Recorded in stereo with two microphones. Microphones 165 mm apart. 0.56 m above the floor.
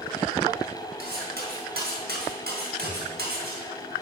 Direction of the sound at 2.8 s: 15° left (ahead or behind).